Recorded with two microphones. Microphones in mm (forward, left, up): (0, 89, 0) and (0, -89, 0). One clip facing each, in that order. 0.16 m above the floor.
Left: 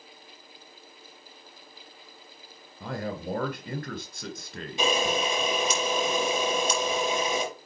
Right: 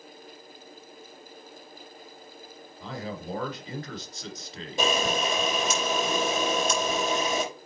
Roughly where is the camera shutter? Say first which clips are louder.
Even; right.